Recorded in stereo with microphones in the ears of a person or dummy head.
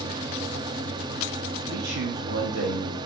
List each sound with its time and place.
0.0 s a fan: 20° right (ahead or behind), 1.1 m
1.7 s a man speaking: 60° right (ahead or behind), 4 m